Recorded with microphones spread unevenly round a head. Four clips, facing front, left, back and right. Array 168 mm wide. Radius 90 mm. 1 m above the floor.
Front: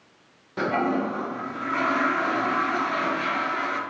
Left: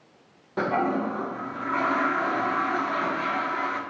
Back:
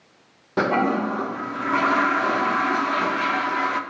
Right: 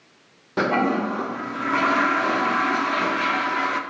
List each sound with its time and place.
0.6 s a toilet flushing: 145° right, 1.0 m